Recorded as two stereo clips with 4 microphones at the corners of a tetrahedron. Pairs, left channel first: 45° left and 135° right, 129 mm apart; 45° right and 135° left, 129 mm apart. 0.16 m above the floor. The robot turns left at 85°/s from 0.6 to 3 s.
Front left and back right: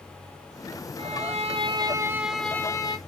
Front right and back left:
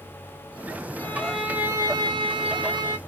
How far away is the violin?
About 0.6 m.